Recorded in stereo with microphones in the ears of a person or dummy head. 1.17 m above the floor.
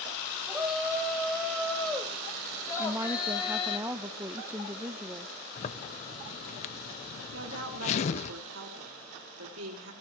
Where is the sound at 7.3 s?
80° right, 4 m.